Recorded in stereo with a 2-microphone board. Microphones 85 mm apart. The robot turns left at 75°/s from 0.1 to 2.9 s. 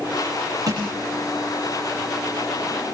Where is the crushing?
50° right (ahead or behind), 8.5 m; by 0.9 s 35° right (ahead or behind), 8.5 m.